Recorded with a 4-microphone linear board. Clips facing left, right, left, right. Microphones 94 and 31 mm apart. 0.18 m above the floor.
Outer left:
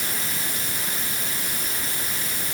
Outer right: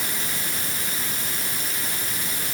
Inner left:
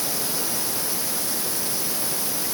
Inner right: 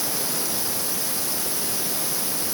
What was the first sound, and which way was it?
Only background noise.